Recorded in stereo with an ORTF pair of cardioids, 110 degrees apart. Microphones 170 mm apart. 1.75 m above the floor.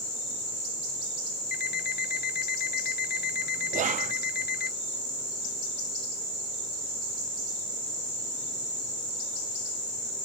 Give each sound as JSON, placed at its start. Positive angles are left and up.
{"t": 1.5, "sound": "an alarm clock", "azimuth_deg": 55}
{"t": 3.7, "sound": "whispering", "azimuth_deg": -45}